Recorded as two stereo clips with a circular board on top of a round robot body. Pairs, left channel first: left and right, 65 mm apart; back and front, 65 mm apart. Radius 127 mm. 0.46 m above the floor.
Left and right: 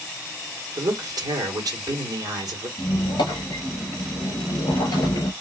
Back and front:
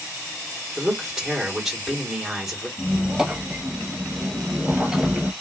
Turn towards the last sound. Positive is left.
turn(degrees=85)